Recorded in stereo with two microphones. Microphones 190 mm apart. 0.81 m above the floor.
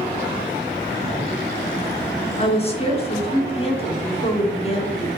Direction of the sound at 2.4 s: 30° left (ahead or behind).